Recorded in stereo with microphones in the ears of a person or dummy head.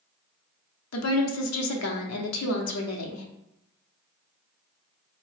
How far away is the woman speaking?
About 0.6 m.